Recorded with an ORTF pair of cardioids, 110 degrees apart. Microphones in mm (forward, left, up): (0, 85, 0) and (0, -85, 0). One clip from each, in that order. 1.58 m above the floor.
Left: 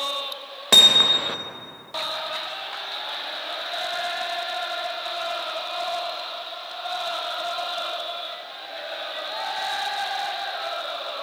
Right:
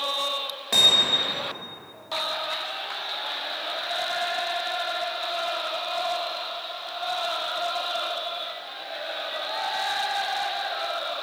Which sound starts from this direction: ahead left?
Hammering, at 0.7 s.